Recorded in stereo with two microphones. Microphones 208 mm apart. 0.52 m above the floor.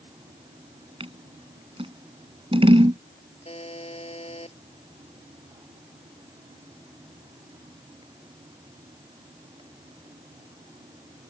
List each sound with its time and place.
1.0 s scissors: 25° right (ahead or behind)
3.5 s a buzzer: 30° left (ahead or behind)